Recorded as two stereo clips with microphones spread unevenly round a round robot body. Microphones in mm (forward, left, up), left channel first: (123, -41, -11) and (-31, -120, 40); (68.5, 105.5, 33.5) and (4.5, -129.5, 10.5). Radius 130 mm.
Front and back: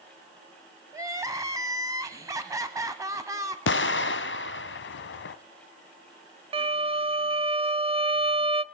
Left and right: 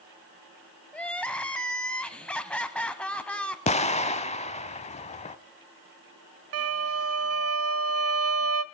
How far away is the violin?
About 0.8 m.